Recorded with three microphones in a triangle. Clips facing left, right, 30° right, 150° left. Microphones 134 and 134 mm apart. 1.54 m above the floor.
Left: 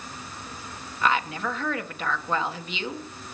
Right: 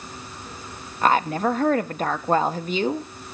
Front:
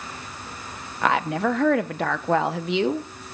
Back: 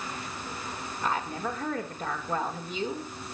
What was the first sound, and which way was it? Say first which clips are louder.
A woman speaking: right 6 dB, front 9 dB; 40° right.